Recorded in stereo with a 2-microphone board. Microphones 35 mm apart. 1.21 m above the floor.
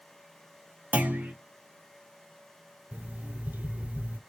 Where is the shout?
I don't hear a shout.